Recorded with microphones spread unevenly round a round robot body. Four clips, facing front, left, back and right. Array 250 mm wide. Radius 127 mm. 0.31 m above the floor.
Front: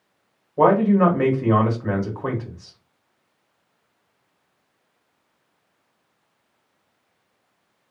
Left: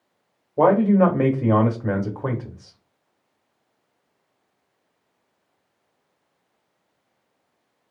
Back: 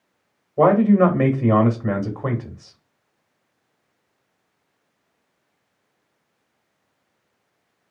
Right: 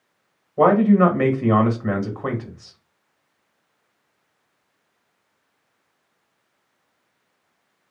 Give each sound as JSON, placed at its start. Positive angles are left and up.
{"t": 0.6, "sound": "a man speaking", "azimuth_deg": 150, "distance_m": 0.9}